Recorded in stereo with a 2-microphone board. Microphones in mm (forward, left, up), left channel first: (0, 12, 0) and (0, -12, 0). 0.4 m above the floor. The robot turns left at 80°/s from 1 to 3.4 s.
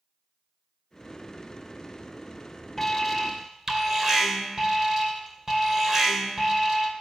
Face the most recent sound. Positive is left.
turn(degrees=-40)